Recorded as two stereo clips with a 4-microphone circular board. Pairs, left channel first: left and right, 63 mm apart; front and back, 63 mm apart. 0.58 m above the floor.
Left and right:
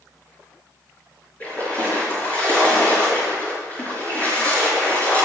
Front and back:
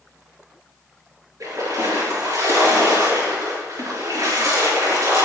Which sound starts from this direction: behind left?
A splash, at 1.4 s.